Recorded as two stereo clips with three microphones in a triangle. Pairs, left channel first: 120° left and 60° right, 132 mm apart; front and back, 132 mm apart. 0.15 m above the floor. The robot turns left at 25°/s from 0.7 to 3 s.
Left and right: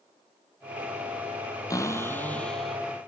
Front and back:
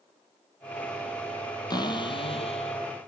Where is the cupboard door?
55° left, 1.5 m; by 2.8 s 30° left, 1.5 m.